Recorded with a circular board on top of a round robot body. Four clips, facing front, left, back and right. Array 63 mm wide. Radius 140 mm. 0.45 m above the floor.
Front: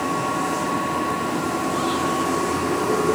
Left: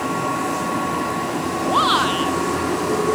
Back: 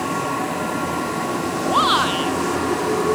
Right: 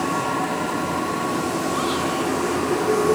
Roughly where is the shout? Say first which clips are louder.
Left 5 dB, back 9 dB; behind left.